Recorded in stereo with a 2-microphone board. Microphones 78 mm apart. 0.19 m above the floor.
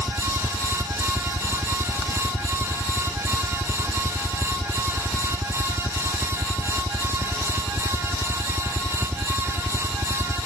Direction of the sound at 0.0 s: 5° right (ahead or behind).